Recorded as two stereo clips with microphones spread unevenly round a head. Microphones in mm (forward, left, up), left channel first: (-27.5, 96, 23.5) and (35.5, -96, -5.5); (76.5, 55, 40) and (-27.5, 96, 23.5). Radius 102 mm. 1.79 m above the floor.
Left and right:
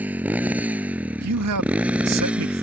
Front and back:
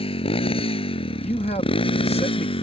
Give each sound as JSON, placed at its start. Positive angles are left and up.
{"t": 0.0, "sound": "a motorcycle", "azimuth_deg": 10}
{"t": 1.2, "sound": "a man speaking", "azimuth_deg": -80}